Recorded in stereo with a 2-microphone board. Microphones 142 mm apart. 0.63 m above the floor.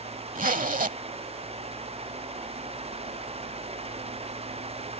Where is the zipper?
70° right (ahead or behind).